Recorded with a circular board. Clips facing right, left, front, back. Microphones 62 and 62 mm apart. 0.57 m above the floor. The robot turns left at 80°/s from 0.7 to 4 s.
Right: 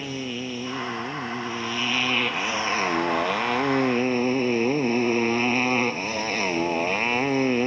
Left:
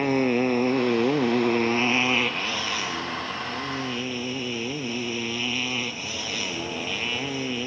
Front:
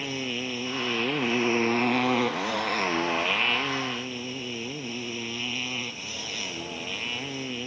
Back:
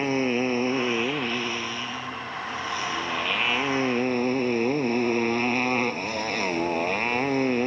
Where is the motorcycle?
125° left; by 7.7 s 135° right.